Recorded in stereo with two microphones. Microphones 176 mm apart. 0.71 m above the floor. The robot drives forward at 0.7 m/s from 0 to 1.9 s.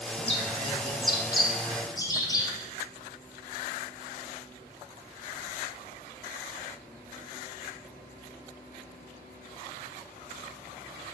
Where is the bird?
35° left (ahead or behind), 1.7 m; by 2.5 s 20° left (ahead or behind), 3 m.